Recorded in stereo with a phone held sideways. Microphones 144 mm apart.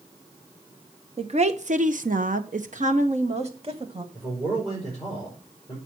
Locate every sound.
1.2 s a woman speaking: 45° right (ahead or behind), 1.0 m; by 4.0 s 40° right (ahead or behind), 1.6 m
4.1 s a man speaking: 25° right (ahead or behind), 4.5 m